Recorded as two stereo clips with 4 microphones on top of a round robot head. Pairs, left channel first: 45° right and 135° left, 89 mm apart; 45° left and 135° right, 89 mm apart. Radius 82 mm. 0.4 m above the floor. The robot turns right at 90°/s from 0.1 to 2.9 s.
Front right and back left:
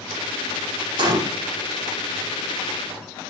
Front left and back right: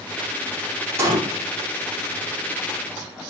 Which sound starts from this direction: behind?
A gunshot, at 1.0 s.